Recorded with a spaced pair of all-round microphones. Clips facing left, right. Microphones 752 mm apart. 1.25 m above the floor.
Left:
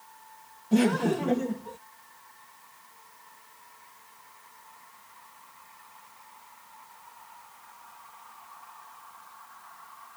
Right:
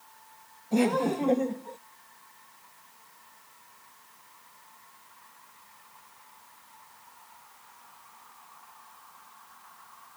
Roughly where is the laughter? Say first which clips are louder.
Left 2 dB; left.